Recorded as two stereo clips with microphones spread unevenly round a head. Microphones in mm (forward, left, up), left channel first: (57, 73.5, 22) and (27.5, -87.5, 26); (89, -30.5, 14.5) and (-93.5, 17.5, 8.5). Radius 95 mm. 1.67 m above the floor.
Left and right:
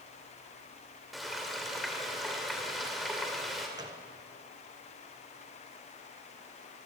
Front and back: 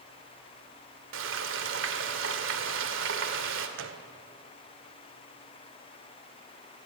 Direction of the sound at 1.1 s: 170° left.